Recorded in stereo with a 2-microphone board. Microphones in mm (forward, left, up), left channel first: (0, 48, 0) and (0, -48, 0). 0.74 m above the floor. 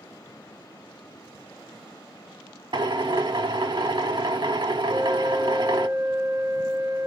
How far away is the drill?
About 0.9 m.